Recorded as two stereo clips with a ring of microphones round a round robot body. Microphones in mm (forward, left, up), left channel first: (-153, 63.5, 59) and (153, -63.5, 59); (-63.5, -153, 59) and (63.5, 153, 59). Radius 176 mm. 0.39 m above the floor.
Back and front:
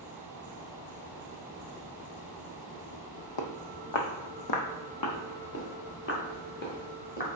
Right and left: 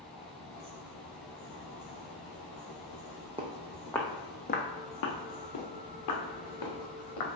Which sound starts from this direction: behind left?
Footsteps, at 3.4 s.